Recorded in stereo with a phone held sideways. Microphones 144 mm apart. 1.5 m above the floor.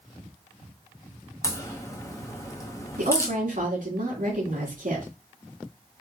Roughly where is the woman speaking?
Right.